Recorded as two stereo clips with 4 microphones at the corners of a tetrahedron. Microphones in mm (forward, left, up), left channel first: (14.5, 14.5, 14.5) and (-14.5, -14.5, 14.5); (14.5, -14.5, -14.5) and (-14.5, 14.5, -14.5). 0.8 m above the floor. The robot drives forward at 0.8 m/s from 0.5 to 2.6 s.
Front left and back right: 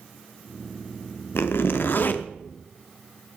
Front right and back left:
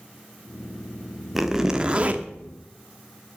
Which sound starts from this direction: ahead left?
A zipper, at 1.4 s.